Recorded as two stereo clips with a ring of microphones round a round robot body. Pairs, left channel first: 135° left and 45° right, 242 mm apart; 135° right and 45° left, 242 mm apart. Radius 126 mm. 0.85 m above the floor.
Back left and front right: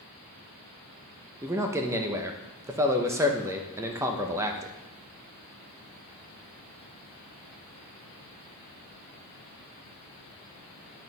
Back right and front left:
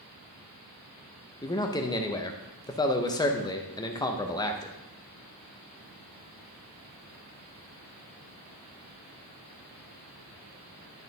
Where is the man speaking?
100° right, 0.8 m.